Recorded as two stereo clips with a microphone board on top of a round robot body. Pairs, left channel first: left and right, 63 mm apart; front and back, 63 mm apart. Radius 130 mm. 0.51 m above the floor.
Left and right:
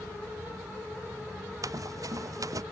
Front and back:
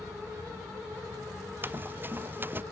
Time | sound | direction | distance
1.6 | running footsteps | 125° right | ?